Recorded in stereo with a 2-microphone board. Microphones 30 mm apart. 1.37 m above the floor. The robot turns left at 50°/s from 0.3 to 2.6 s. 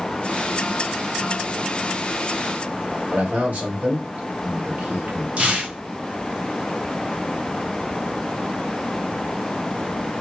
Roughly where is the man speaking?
Right.